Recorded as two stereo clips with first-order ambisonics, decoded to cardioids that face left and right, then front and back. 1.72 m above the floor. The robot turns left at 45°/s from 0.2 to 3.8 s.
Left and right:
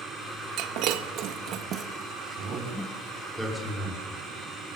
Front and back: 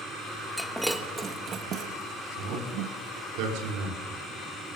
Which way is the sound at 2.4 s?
135° right.